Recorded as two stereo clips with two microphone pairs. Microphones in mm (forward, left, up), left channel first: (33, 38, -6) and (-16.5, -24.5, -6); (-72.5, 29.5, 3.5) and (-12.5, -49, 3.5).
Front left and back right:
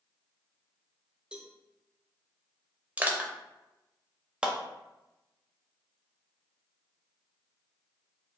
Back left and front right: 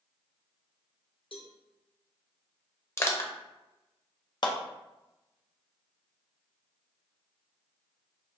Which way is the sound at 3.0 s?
170° left.